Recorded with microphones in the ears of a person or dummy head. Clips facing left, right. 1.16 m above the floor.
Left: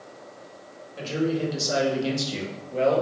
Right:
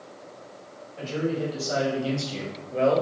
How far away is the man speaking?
About 1.3 m.